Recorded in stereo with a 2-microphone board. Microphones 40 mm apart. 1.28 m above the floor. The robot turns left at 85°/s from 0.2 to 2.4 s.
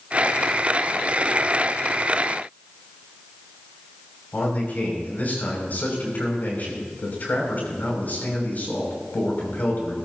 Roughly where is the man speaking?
Left.